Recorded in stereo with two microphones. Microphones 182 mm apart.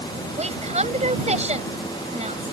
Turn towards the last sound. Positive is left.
turn(degrees=-35)  # may be behind; listen again after turning